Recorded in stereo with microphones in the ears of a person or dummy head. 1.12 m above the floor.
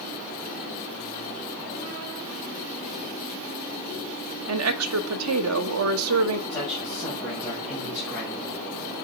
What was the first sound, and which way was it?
A woman speaking, 85° right.